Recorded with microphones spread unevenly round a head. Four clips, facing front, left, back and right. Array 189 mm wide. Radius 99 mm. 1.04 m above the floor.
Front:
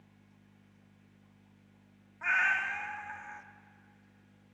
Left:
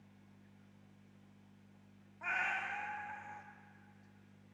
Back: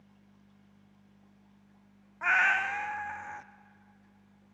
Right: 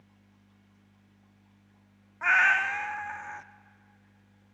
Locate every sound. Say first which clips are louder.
2.2 s a cat meowing: right 14 dB, back 4 dB; 150° right, 0.5 m